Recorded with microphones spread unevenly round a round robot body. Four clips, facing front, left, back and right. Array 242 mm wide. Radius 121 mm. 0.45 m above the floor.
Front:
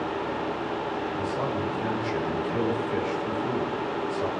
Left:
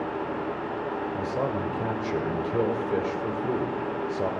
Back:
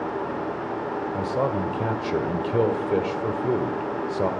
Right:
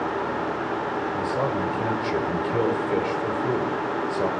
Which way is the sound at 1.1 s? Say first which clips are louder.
Right 3 dB, back 7 dB; 170° right.